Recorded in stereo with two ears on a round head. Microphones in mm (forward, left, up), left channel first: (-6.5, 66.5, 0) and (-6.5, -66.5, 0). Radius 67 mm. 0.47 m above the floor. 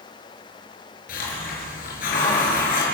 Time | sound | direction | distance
1.1 | a hiss | 65° left (ahead or behind) | 6 m